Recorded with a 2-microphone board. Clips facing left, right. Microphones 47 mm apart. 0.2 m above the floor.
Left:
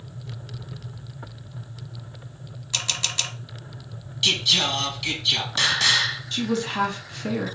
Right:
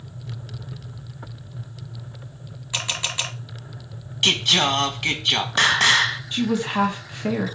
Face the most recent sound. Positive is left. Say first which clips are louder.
# right 2 dB
turn(degrees=-20)  # may be behind; listen again after turning